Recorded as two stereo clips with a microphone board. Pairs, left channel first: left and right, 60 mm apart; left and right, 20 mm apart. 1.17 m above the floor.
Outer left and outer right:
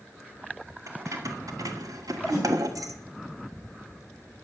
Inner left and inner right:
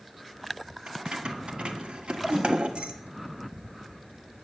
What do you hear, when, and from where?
0.9 s keys jangling: 60° right (ahead or behind), 1.7 m; by 2.9 s 75° right (ahead or behind), 1.3 m
2.3 s a whoosh: 75° right (ahead or behind), 7 m